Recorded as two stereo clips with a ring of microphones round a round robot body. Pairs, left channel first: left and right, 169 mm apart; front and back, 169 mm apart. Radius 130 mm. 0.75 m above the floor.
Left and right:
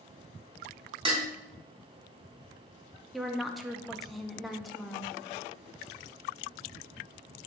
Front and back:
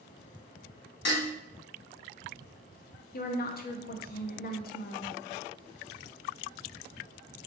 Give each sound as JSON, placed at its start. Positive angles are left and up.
{"t": 1.1, "sound": "dishes clattering", "azimuth_deg": -25, "distance_m": 1.5}
{"t": 3.1, "sound": "a woman speaking", "azimuth_deg": 0, "distance_m": 0.7}